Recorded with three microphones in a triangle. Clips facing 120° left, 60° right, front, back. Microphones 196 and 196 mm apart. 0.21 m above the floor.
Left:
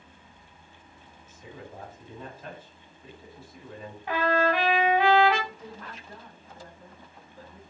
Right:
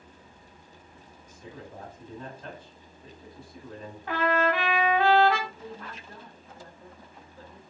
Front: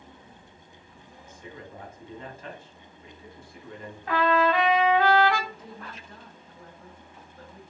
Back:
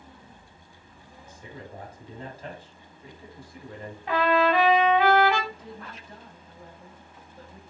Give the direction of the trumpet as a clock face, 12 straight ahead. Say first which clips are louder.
Left 1 dB, back 1 dB; 7 o'clock.